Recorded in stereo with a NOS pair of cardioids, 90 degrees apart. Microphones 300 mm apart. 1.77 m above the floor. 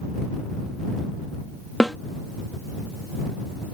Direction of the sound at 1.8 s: Straight ahead.